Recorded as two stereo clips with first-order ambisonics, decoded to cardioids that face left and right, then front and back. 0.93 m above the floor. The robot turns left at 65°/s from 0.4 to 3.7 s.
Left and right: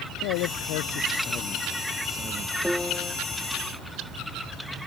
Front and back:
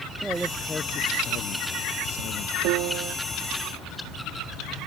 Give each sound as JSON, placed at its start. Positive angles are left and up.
{"t": 0.2, "sound": "a man speaking", "azimuth_deg": 100}
{"t": 2.6, "sound": "a piano", "azimuth_deg": 180}